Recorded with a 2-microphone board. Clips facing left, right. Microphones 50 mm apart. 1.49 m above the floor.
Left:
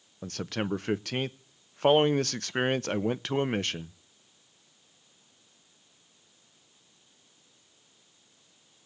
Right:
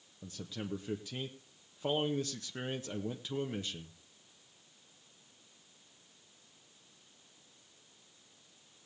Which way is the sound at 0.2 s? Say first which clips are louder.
Left 10 dB; 70° left (ahead or behind).